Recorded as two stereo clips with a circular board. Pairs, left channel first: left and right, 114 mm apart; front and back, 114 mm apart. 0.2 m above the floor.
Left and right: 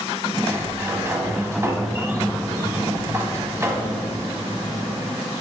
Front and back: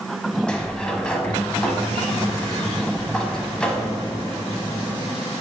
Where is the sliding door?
70° right, 0.8 m.